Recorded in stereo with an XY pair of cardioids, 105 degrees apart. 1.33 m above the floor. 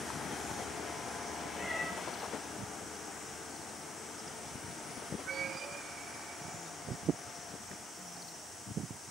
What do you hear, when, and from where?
1.6 s a cat meowing: 30° left, 4 m